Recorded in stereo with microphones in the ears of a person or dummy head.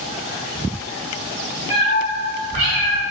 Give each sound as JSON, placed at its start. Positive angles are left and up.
{"t": 1.7, "sound": "a cat meowing", "side_deg": -10, "distance_m": 1.1}